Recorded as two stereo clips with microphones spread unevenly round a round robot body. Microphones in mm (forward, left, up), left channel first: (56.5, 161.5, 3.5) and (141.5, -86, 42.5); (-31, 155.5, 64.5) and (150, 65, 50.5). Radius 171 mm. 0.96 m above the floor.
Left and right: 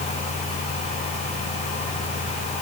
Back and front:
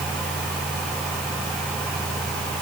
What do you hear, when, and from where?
Only background noise.